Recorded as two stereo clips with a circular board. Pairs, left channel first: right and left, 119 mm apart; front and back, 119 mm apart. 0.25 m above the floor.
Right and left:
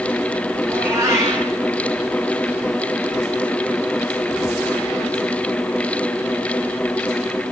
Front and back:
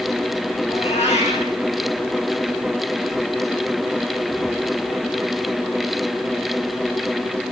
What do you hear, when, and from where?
0.7 s a cat meowing: 25° left, 5 m